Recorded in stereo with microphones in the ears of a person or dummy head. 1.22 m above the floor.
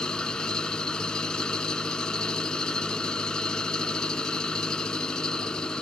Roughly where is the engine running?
Centre.